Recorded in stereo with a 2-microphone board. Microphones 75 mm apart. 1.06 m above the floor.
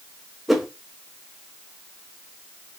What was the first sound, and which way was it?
A whoosh, centre (ahead or behind).